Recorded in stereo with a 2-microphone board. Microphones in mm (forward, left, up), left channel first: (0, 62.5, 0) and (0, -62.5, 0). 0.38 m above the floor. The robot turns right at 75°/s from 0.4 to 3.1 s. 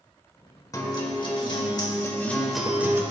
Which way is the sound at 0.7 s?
45° left.